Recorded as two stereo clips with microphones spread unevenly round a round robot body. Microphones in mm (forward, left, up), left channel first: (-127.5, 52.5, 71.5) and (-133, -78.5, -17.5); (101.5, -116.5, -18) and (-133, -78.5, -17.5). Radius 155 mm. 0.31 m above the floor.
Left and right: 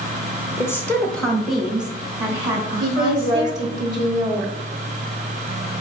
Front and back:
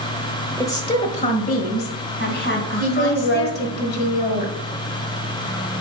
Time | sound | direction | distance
0.6 | a woman speaking | 65° right | 1.1 m
2.8 | a woman speaking | 45° right | 2.0 m